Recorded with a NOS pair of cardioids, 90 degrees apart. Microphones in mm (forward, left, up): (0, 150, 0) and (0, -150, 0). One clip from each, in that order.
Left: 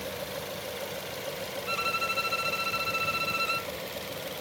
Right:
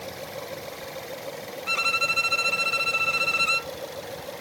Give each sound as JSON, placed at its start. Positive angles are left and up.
{"t": 1.7, "sound": "a violin", "azimuth_deg": -50}